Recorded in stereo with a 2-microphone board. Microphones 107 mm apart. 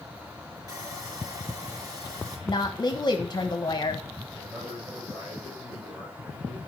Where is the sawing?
30° right (ahead or behind), 4 m.